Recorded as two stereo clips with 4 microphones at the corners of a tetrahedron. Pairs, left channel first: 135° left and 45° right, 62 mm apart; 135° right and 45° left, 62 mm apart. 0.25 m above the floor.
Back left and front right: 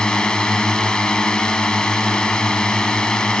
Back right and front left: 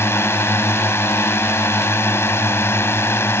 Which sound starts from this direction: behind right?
A drone, at 0.0 s.